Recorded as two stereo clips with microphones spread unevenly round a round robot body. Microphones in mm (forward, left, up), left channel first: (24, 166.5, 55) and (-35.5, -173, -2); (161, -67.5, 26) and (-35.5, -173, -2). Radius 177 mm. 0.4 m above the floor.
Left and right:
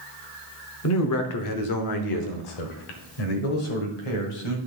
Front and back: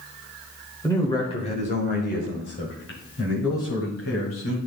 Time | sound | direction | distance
0.8 | a man speaking | 115° left | 1.0 m